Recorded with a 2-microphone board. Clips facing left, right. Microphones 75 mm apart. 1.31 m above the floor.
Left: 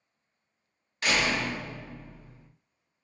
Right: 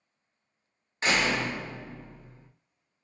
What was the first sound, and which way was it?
A door slam, 30° right (ahead or behind).